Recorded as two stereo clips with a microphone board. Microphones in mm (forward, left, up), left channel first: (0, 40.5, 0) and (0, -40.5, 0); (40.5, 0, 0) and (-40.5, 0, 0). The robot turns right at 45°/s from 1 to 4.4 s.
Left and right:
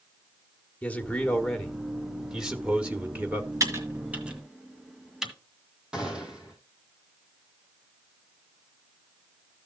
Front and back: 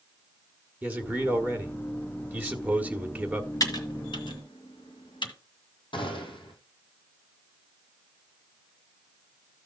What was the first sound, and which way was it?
A man speaking, 135° left.